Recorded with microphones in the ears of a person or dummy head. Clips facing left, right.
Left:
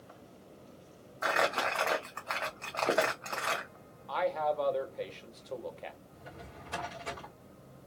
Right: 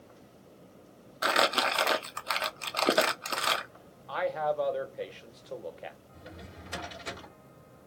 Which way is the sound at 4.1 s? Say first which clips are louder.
Right 1 dB; 5° right (ahead or behind).